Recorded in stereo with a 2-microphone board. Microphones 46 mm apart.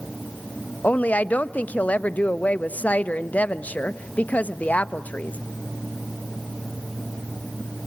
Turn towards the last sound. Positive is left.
turn(degrees=35)  # may be behind; listen again after turning